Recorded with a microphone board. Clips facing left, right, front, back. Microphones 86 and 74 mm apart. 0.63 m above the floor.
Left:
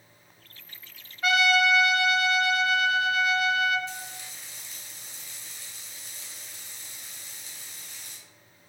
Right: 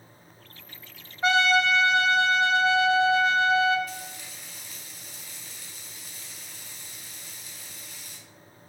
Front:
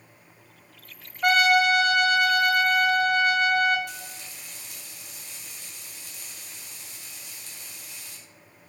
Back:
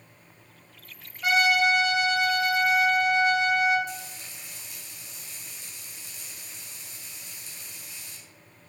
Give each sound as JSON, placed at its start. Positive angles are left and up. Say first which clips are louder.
{"t": 1.2, "sound": "a trumpet", "louder": "right 1 dB, front 3 dB", "azimuth_deg": -30, "distance_m": 0.8}
{"t": 3.9, "sound": "frying", "louder": "right 1 dB, back 2 dB", "azimuth_deg": 25, "distance_m": 2.5}